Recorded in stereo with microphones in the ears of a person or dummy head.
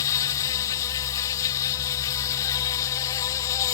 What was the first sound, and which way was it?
An insect, 15° left (ahead or behind).